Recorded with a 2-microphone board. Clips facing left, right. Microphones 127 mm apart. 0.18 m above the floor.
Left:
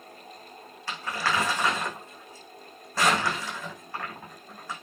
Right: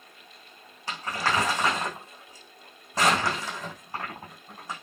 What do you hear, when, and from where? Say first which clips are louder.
0.9 s crumpling: right 1 dB; 20° right (ahead or behind), 6.5 m